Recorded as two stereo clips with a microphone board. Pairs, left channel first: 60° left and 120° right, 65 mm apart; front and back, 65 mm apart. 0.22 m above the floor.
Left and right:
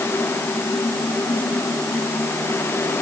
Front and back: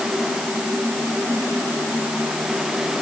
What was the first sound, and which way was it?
Only background noise.